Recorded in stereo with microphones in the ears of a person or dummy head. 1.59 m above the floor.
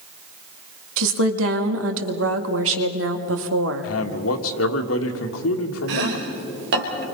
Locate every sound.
1.0 s a woman speaking: 75° right (ahead or behind), 2 m
3.8 s a man speaking: 85° left, 2 m
5.9 s chopping: 65° right (ahead or behind), 4 m